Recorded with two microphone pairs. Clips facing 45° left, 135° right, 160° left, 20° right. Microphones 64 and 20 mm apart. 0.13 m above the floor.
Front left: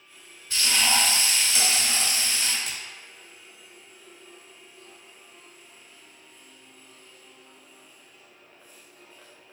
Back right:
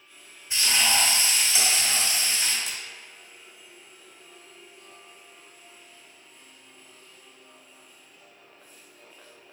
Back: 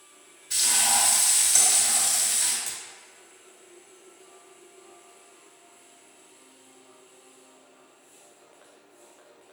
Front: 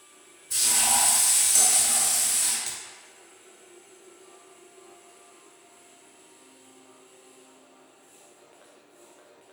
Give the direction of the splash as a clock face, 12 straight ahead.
11 o'clock.